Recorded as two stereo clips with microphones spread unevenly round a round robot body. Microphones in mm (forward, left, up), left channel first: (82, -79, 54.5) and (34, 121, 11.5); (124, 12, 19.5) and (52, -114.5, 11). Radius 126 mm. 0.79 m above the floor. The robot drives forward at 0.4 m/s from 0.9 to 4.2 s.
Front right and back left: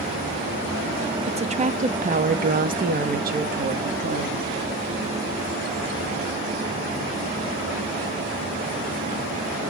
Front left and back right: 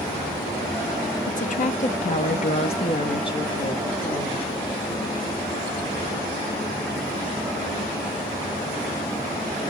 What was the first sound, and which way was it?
A woman speaking, 60° left.